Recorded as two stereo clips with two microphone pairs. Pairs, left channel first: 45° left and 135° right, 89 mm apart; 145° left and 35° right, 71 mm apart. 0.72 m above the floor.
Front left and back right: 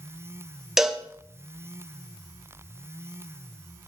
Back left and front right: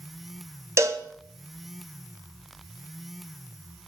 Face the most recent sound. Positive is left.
turn(degrees=-55)